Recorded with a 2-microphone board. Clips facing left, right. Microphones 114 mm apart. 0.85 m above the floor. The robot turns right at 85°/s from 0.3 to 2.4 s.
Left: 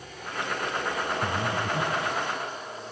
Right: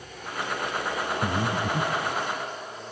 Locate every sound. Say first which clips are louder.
1.2 s breathing: right 2 dB; 70° right (ahead or behind), 3 m; by 2.2 s 25° right (ahead or behind), 3 m